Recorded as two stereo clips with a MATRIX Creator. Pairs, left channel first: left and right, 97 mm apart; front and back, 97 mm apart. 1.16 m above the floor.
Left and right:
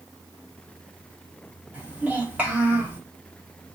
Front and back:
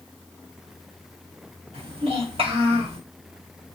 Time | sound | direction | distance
1.7 | a child speaking | 165° right | 1.4 m